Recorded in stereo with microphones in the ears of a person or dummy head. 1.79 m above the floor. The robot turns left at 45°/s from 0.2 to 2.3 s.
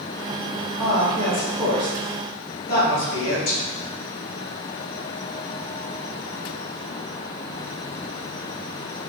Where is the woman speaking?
10° right (ahead or behind), 1.6 m; by 3.6 s 55° left (ahead or behind), 1.6 m.